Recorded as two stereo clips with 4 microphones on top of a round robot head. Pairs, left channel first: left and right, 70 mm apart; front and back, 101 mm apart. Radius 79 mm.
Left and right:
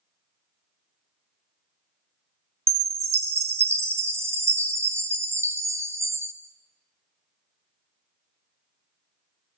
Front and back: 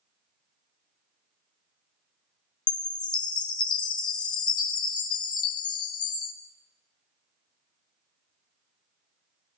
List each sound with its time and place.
2.7 s a chime: 40° right, 0.6 m